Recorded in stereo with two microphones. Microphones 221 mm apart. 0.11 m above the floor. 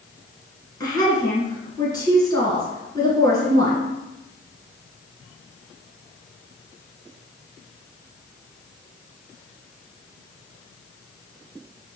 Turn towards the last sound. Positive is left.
turn(degrees=15)  # may be behind; listen again after turning